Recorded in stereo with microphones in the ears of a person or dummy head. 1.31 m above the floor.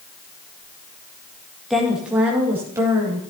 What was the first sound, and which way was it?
A woman speaking, centre (ahead or behind).